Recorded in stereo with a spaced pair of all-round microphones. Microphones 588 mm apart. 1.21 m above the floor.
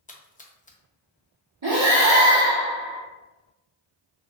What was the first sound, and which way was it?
A splash, 15° left (ahead or behind).